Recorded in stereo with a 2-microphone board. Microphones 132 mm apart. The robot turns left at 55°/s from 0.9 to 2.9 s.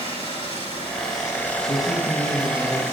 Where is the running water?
45° left, 9.5 m; by 2.9 s 65° right, 9.5 m.